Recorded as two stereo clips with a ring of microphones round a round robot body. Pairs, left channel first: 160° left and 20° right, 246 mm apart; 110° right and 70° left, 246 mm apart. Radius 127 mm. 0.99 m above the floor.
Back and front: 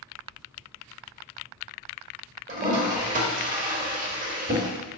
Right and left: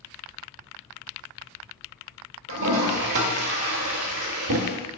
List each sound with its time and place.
2.5 s a toilet flushing: 35° left, 1.4 m